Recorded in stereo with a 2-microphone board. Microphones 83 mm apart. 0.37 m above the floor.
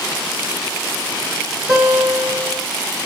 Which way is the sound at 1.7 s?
15° right (ahead or behind).